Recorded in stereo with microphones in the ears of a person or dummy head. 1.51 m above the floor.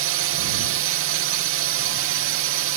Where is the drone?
60° right (ahead or behind).